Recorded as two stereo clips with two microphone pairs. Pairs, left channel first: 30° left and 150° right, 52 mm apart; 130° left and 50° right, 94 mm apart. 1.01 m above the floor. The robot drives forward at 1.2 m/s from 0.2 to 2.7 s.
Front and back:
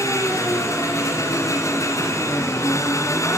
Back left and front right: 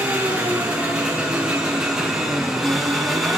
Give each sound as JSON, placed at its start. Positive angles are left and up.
{"t": 0.0, "sound": "an engine running", "azimuth_deg": 25, "distance_m": 8.5}